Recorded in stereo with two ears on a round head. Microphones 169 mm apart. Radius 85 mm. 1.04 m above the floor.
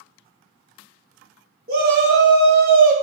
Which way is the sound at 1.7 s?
55° right (ahead or behind).